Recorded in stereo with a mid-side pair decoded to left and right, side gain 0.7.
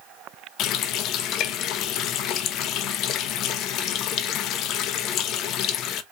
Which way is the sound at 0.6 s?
55° left.